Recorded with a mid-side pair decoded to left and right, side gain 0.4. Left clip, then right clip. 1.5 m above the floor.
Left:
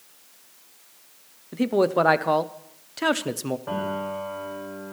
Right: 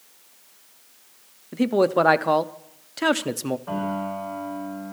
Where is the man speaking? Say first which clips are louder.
Right 1 dB; 15° right, 0.5 m.